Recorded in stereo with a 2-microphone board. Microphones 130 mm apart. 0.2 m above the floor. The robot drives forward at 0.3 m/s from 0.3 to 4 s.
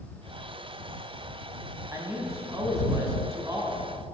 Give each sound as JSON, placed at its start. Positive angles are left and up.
{"t": 1.9, "sound": "a man speaking", "side_deg": -25, "distance_m": 1.5}